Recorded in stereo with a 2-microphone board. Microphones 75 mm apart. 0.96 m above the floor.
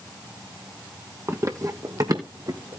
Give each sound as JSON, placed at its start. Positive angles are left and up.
{"t": 1.3, "sound": "running footsteps", "side_deg": -35, "distance_m": 1.2}